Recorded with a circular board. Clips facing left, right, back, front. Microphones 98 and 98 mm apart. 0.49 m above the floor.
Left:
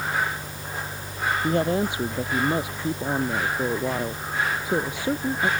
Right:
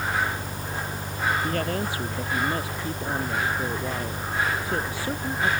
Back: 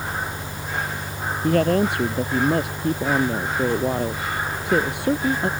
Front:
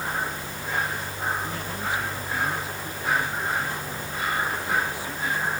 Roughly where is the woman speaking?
Behind.